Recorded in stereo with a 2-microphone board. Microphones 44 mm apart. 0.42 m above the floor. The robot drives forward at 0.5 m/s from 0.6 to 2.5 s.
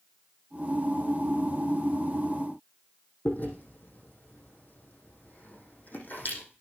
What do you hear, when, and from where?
3.2 s chewing: 45° left (ahead or behind), 5.5 m